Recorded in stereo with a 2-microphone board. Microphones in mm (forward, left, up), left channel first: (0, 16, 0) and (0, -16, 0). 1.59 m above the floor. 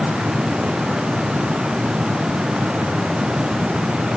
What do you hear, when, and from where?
Only background noise.